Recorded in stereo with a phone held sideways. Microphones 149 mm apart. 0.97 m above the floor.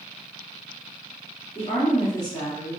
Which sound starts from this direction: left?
A woman speaking, at 1.6 s.